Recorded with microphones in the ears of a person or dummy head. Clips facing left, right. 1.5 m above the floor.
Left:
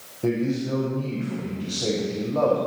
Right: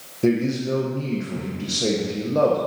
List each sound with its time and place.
0.2 s a man speaking: 35° right (ahead or behind), 1.2 m